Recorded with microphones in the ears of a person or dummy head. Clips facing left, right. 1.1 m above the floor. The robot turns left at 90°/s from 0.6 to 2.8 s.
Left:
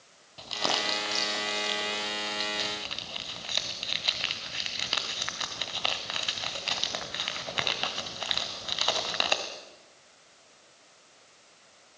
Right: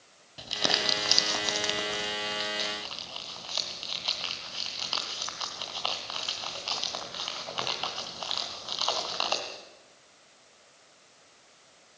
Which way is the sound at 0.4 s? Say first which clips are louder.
Even; 10° right (ahead or behind).